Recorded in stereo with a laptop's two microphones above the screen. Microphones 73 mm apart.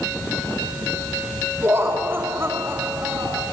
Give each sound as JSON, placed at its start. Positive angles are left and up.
{"t": 1.6, "sound": "laughter", "side_deg": -30, "distance_m": 3.5}